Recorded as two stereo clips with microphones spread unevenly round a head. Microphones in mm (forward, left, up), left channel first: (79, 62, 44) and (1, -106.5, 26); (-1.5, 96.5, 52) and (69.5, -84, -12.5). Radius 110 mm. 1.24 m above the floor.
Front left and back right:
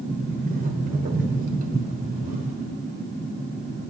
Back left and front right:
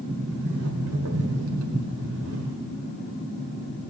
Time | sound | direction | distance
0.1 | a sliding door | 80° right | 1.2 m